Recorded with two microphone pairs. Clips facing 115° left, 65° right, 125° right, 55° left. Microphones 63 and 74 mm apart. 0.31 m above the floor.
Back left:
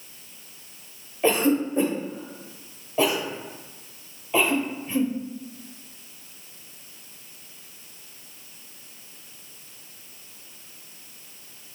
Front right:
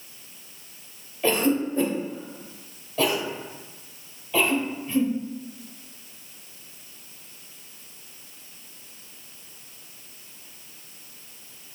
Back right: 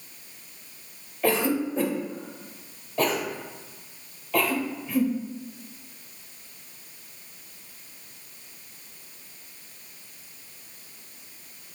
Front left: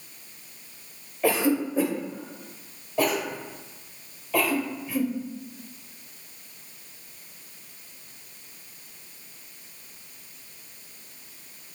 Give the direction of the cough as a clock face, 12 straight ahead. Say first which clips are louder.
Back left 1 dB, front left 1 dB; 8 o'clock.